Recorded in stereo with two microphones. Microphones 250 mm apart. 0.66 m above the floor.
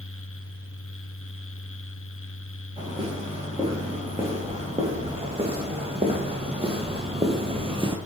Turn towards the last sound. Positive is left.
turn(degrees=-20)  # may be behind; listen again after turning